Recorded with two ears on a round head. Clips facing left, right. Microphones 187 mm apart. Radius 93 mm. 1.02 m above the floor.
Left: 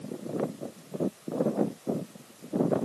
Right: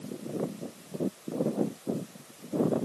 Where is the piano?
No piano in this recording.